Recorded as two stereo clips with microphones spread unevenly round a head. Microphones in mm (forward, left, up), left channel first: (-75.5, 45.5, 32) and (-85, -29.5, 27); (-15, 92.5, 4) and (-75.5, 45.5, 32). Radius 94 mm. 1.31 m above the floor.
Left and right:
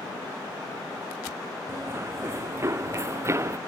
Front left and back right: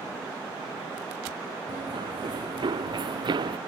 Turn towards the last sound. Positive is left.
turn(degrees=-150)